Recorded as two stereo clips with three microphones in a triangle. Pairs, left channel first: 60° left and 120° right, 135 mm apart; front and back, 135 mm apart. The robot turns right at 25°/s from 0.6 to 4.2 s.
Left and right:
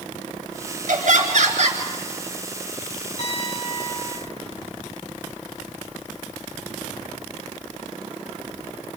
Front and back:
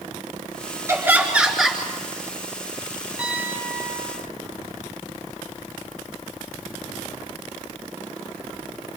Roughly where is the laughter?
Right.